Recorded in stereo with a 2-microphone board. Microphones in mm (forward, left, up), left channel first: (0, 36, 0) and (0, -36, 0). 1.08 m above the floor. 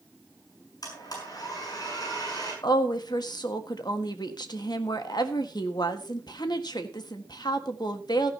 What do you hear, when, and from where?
0.8 s a blender: 60° left (ahead or behind), 6.5 m
2.6 s a woman speaking: 70° left (ahead or behind), 1.6 m